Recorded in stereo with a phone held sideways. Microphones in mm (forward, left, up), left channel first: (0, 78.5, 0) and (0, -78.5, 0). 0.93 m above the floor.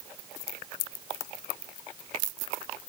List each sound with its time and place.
Only background noise.